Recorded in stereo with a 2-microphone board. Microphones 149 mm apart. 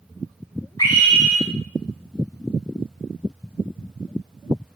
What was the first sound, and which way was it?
A scream, 30° left (ahead or behind).